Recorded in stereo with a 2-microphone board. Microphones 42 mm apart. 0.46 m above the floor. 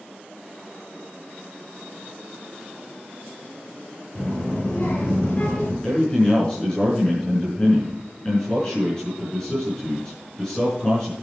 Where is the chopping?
I don't hear chopping.